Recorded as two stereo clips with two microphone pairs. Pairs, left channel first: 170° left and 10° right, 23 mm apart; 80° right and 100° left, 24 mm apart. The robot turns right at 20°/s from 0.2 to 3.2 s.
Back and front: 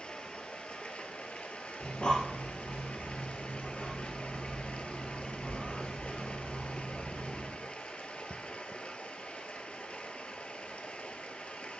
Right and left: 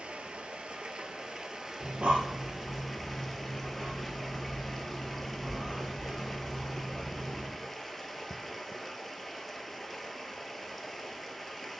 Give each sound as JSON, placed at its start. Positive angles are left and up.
{"t": 0.0, "sound": "running water", "azimuth_deg": 135, "distance_m": 0.7}
{"t": 1.8, "sound": "breathing", "azimuth_deg": 135, "distance_m": 1.8}